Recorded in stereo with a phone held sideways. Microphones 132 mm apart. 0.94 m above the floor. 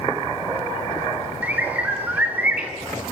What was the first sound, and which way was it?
A bird, 15° right (ahead or behind).